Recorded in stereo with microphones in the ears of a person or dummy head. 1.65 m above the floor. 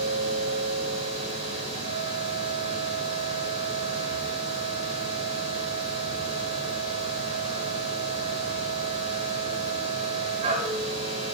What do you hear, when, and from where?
0.0 s a machine running: 40° right (ahead or behind), 2.5 m